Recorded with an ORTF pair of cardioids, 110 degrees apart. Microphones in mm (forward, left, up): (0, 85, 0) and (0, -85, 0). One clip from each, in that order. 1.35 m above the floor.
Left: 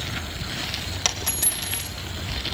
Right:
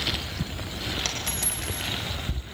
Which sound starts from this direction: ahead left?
A dropped coin, at 1.1 s.